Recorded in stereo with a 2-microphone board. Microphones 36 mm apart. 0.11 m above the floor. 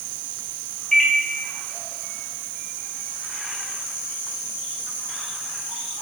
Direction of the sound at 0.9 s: 10° left (ahead or behind).